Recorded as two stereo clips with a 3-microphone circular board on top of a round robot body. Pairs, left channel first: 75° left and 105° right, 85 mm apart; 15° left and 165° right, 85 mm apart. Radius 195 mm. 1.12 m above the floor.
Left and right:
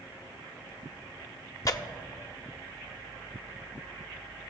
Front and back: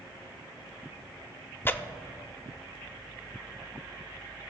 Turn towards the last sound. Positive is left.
turn(degrees=65)